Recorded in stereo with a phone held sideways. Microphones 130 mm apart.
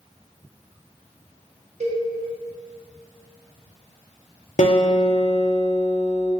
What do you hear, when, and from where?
1.8 s a cowbell: 60° right (ahead or behind), 0.7 m
4.6 s a guitar: 65° left (ahead or behind), 0.7 m